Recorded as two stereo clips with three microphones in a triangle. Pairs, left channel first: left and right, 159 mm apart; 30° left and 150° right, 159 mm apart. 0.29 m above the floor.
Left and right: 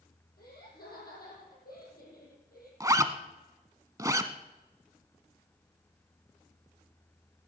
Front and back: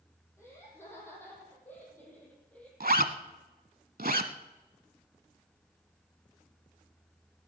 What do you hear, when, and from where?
0.4 s laughter: 105° left, 9 m; by 2.7 s 110° left, 8 m
2.8 s a zipper: 160° right, 0.9 m